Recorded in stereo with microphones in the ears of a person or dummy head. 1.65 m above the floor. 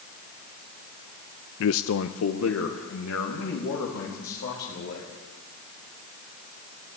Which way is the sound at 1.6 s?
70° left (ahead or behind).